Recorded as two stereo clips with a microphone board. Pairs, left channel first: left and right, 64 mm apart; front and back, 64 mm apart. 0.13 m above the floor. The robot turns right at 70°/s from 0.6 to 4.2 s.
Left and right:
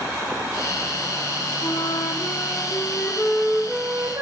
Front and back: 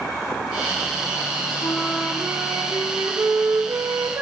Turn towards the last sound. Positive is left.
turn(degrees=-130)